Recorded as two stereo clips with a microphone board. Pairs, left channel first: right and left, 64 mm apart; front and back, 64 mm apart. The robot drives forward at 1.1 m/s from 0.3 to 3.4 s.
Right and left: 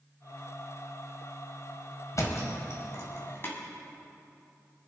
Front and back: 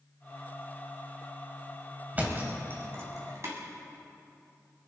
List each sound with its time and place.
2.1 s a thud: 120° right, 2.5 m; by 3.5 s 140° right, 3 m